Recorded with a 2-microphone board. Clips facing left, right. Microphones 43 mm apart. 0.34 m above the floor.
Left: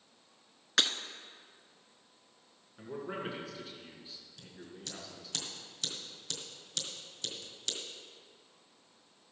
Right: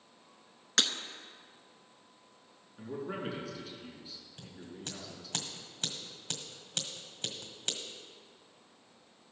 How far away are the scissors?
About 1.7 m.